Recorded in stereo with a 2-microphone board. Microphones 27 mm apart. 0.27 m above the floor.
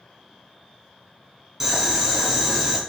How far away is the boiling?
About 1.0 m.